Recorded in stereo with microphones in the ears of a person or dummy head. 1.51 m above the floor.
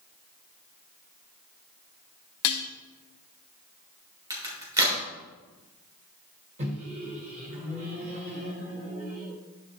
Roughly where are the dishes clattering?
Left.